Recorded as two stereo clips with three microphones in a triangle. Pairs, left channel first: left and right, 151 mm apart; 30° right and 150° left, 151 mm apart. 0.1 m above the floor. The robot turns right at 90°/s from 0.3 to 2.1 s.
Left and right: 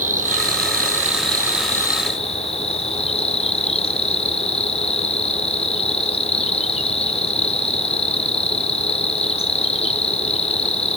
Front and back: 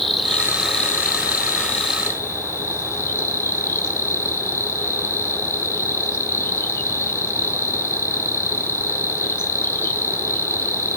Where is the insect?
120° right, 1.3 m; by 11.0 s 40° left, 1.3 m.